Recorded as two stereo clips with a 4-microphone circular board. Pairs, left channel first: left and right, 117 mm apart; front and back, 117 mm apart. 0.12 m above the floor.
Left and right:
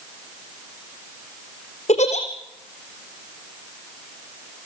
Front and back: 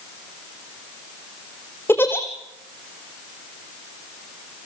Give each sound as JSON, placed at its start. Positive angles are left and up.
{"t": 1.9, "sound": "a giggle", "azimuth_deg": 70, "distance_m": 3.0}